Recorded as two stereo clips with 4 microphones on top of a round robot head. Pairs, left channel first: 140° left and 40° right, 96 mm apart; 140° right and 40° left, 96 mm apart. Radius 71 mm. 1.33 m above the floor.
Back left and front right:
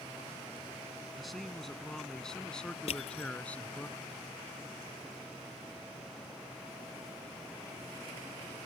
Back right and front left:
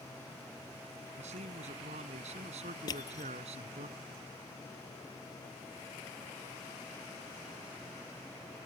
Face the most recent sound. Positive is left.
turn(degrees=165)